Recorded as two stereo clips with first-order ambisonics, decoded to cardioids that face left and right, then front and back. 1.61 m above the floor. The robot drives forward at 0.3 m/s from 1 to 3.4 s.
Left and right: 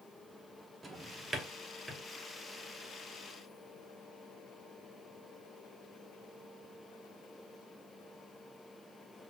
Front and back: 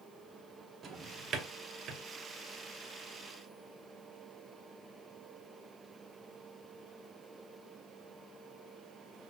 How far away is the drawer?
About 0.8 m.